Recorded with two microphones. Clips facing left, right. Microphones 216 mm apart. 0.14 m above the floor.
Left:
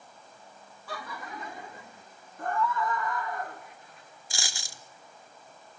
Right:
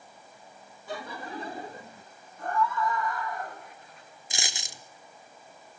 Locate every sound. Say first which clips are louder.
0.9 s laughter: right 3 dB; 20° right (ahead or behind), 1.4 m; by 2.0 s 35° right (ahead or behind), 1.8 m
2.4 s a scream: right 1 dB; 55° left (ahead or behind), 6.5 m
4.3 s a dropped coin: right 3 dB; 20° right (ahead or behind), 0.9 m